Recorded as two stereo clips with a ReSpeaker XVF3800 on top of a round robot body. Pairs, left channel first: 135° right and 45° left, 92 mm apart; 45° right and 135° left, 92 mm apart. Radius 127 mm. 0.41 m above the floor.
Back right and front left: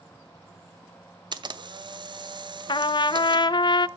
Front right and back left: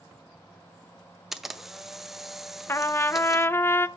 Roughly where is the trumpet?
Right.